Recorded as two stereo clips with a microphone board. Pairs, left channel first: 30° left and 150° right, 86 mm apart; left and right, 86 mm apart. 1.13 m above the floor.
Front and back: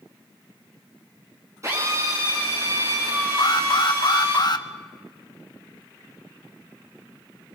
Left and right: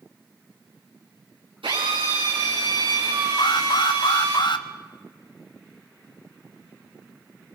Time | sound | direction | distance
1.6 | a drill | 95° right | 7.5 m
3.4 | an alarm | 60° left | 0.8 m